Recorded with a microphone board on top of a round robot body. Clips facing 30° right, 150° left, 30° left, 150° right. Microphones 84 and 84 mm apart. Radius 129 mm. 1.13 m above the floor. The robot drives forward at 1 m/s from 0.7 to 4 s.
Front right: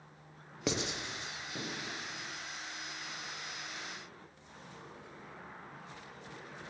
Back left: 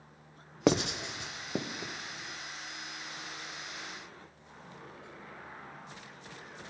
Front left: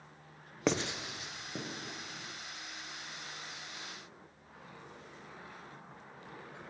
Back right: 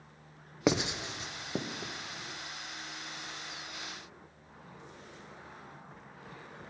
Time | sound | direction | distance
0.7 | writing | 130° left | 0.7 m